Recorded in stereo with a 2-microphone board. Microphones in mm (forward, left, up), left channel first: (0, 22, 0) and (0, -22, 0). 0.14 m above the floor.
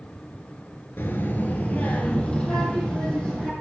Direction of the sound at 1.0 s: 55° left (ahead or behind).